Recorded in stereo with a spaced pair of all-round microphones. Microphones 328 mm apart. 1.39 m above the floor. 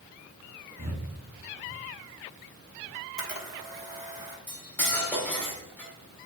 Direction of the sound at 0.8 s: 60° right (ahead or behind).